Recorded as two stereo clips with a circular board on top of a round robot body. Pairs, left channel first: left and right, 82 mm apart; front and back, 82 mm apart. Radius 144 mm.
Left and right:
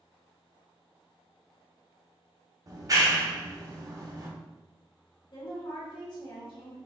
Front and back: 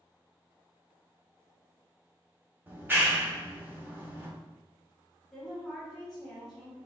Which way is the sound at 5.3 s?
90° left.